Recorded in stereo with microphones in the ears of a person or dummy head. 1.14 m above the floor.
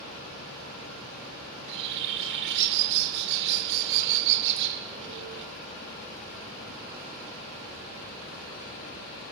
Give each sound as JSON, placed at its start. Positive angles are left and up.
{"t": 1.5, "sound": "a bird", "side_deg": -65, "distance_m": 1.6}